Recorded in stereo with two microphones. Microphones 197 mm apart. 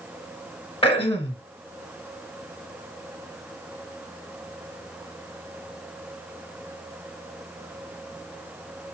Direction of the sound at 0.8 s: 30° left (ahead or behind).